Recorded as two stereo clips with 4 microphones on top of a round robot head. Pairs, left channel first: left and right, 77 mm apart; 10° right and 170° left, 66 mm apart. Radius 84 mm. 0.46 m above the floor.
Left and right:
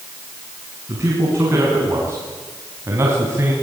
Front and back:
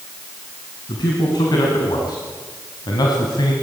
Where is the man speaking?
30° right, 5 m.